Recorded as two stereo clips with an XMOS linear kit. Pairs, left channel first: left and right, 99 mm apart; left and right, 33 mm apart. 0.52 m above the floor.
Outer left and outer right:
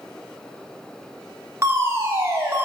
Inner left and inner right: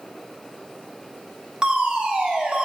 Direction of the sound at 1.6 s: 25° right (ahead or behind).